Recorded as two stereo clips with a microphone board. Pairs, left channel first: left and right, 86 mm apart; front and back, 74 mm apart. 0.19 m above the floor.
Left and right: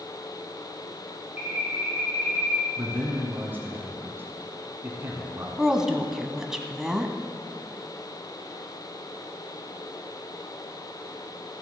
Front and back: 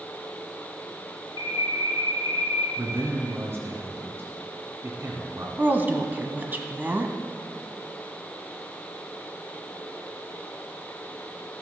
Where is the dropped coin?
I don't hear a dropped coin.